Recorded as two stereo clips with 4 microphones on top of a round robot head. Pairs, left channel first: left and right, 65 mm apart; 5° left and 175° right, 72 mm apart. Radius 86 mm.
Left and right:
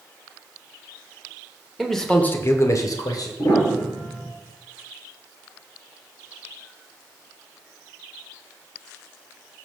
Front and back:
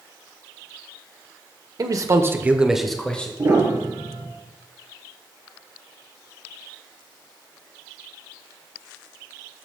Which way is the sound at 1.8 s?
Straight behind.